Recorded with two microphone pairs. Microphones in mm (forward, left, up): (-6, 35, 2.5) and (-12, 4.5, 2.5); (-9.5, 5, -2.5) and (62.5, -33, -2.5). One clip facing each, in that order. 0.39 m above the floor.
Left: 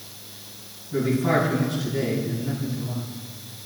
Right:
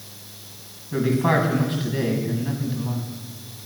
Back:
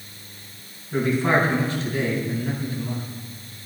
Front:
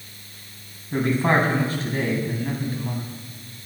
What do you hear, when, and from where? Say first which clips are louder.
0.9 s a man speaking: right 1 dB, even; 70° right, 3 m